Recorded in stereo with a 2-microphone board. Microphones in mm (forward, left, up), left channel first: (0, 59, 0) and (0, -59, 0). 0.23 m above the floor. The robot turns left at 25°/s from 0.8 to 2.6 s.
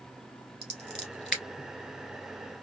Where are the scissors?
5° left (ahead or behind), 1.5 m; by 1.4 s 10° right (ahead or behind), 1.5 m.